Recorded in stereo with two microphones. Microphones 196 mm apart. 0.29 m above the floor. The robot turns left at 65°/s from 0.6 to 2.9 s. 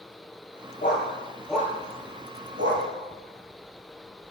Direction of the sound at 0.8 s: 45° left (ahead or behind).